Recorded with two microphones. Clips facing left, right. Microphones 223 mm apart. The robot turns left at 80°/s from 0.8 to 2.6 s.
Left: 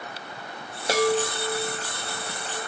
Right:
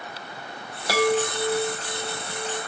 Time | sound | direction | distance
0.9 | a chime | 25° left | 0.7 m